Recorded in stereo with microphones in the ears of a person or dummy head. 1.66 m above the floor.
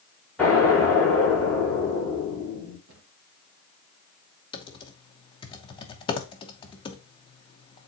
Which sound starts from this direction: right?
A cupboard door, at 2.9 s.